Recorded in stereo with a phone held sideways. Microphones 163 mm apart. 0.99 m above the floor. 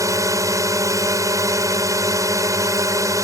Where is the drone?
20° right (ahead or behind).